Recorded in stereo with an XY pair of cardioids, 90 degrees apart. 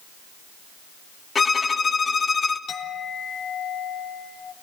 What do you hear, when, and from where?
1.4 s a violin: 40° left, 2.5 m
2.7 s a clink: 65° left, 3.5 m